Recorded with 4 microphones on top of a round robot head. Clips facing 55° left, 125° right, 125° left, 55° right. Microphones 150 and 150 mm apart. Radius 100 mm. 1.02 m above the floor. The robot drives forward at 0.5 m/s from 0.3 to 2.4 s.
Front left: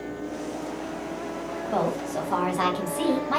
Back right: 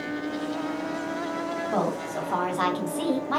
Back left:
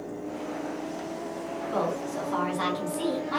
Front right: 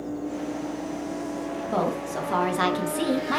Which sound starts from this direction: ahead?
A woman speaking, at 1.7 s.